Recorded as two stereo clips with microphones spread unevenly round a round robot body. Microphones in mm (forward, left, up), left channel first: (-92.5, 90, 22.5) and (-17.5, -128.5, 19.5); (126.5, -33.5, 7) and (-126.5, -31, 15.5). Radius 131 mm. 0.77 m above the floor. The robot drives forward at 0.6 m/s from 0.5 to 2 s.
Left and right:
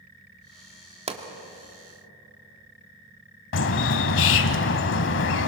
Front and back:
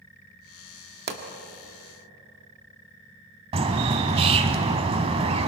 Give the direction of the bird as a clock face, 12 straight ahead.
8 o'clock.